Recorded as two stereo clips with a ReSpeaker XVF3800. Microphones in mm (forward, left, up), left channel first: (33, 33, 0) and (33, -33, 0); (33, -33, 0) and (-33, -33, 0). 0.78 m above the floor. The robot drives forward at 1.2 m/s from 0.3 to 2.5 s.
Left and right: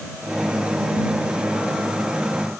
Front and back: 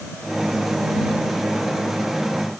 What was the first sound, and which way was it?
Only background noise.